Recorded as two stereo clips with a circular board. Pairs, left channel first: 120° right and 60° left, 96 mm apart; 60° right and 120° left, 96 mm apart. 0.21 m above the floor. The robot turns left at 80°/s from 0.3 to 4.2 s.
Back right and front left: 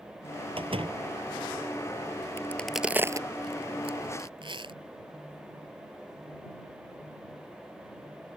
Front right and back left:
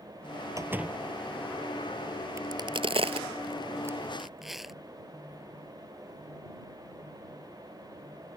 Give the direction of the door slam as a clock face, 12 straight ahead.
10 o'clock.